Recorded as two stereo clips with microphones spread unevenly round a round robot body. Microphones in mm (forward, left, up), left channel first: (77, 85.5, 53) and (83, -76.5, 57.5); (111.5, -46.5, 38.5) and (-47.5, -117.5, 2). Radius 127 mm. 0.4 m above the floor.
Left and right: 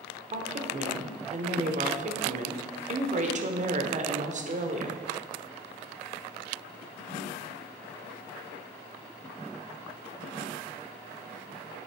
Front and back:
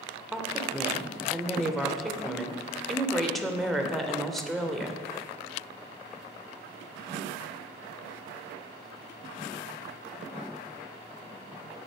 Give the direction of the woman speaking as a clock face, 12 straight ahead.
3 o'clock.